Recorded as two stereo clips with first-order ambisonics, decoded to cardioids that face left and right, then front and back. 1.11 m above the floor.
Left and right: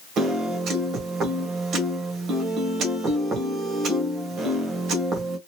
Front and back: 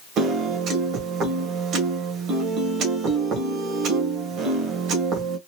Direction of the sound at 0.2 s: 135° right.